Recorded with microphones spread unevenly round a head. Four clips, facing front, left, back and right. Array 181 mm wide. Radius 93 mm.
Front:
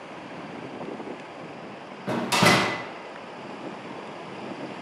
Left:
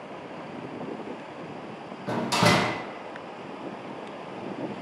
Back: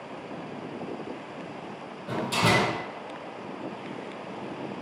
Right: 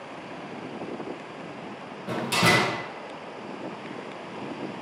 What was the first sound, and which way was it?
A door slam, 15° left.